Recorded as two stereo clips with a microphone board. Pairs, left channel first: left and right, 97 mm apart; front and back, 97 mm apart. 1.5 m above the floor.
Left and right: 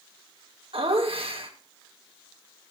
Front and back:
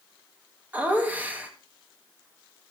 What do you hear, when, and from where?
0.7 s laughter: 105° right, 2 m